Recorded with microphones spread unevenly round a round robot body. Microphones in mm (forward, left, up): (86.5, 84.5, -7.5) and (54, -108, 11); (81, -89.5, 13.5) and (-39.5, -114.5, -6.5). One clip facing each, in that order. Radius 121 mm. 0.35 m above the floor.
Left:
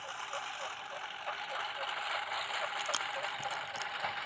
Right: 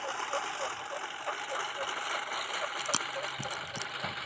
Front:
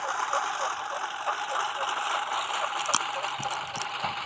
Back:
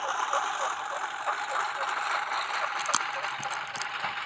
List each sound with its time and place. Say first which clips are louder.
0.0 s a lawn mower: right 8 dB, even; 80° right; by 4.2 s 55° right
2.8 s chewing: right 3 dB, front 2 dB; 70° right